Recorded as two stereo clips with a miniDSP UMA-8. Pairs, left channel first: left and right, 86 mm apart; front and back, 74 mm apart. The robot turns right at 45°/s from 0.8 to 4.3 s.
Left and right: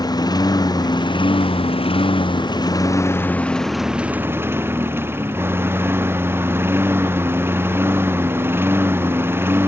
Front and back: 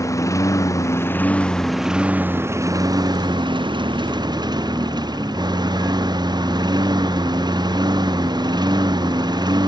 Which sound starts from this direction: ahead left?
A lawn mower, at 0.0 s.